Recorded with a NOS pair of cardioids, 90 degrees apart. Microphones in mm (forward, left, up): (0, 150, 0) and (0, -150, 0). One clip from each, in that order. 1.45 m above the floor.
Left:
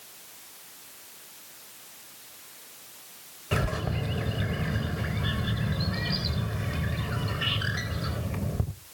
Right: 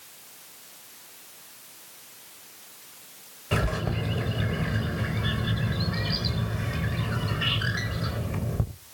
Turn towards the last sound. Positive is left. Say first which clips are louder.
# right 2 dB
turn(degrees=-10)